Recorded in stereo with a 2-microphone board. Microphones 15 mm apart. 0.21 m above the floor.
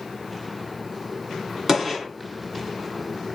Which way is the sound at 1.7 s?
20° right (ahead or behind).